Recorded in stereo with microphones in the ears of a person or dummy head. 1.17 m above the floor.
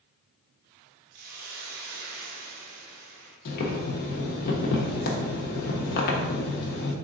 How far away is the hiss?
About 1.1 m.